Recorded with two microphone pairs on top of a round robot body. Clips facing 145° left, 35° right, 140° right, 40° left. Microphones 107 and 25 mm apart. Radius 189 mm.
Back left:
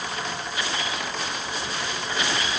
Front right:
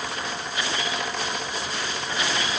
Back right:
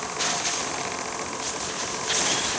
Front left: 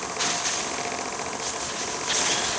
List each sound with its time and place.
Only background noise.